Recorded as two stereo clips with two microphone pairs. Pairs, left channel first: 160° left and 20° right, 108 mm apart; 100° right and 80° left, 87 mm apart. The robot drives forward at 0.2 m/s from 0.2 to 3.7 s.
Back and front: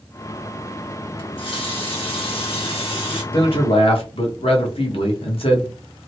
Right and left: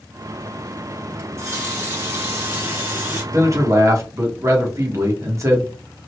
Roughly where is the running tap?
Behind left.